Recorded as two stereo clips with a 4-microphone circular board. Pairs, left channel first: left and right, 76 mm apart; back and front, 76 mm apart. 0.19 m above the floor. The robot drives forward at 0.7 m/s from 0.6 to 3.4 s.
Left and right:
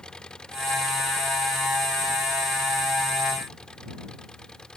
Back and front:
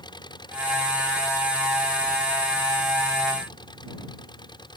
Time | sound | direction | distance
0.0 | an engine running | 170° left | ?